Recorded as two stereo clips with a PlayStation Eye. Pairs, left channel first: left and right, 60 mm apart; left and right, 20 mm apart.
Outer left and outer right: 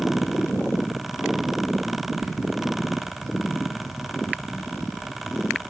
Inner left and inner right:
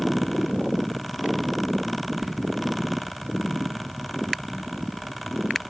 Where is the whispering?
45° right (ahead or behind), 1.5 m.